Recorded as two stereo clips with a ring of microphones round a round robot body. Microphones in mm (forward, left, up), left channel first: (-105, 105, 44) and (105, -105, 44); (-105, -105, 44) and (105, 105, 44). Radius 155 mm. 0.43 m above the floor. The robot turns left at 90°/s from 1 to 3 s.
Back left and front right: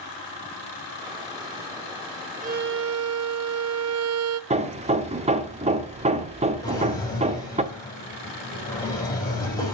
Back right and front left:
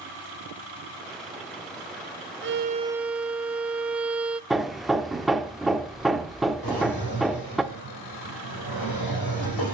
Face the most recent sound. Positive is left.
turn(degrees=-145)